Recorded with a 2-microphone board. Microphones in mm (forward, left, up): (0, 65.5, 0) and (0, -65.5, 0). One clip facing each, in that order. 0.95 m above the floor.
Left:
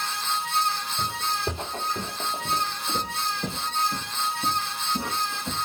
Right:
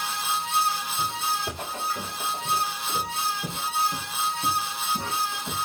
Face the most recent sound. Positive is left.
turn(degrees=10)  # may be behind; listen again after turning